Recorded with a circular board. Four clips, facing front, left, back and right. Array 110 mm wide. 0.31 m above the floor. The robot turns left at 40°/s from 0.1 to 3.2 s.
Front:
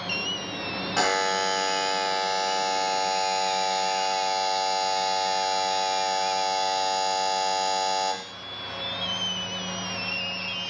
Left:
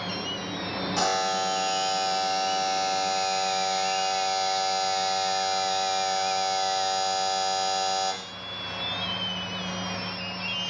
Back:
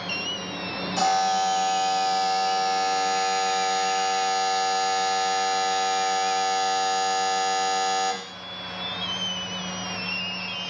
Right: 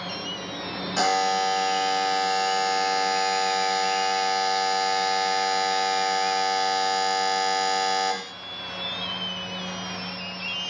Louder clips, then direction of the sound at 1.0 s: Right 4 dB, back 3 dB; 20° right.